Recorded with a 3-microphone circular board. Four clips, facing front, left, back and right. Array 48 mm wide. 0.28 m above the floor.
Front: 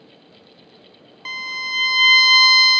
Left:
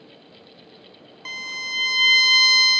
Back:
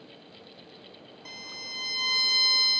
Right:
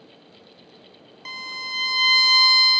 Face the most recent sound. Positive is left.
turn(degrees=5)